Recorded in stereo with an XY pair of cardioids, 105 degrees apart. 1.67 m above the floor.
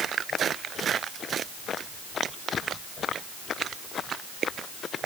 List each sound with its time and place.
Only background noise.